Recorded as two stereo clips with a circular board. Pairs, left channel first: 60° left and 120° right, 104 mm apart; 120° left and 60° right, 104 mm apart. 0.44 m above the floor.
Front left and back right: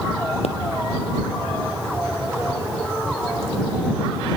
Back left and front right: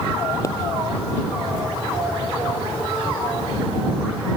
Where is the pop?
60° left.